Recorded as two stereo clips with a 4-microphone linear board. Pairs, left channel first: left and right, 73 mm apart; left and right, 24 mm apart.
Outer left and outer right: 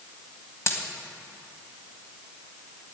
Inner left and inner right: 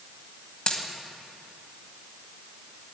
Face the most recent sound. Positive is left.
turn(degrees=45)  # may be behind; listen again after turning